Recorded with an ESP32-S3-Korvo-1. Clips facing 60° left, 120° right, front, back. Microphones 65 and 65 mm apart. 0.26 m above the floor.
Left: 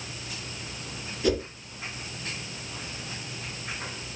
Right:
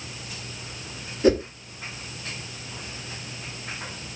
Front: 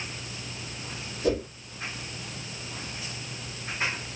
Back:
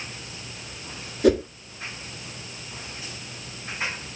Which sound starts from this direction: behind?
A whoosh, at 1.2 s.